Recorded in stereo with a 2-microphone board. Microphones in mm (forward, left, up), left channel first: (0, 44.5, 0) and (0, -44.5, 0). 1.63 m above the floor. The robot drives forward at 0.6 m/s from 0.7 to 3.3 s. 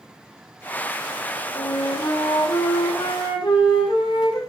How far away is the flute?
About 7 m.